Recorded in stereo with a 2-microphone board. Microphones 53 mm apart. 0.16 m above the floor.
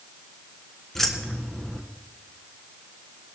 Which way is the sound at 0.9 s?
10° left (ahead or behind).